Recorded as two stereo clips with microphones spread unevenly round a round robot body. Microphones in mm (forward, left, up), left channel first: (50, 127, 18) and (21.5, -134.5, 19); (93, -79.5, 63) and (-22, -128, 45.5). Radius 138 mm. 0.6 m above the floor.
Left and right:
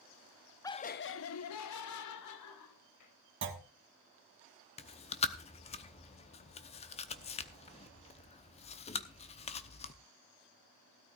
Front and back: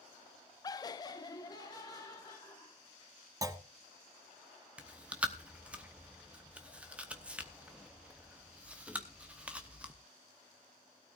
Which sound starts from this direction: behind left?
Chewing, at 4.8 s.